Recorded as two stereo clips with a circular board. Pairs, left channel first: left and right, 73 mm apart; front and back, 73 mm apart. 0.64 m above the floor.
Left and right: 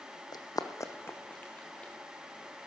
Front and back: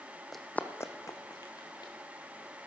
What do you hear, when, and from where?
0.3 s running footsteps: 90° left, 1.1 m; by 1.9 s 15° left, 2.5 m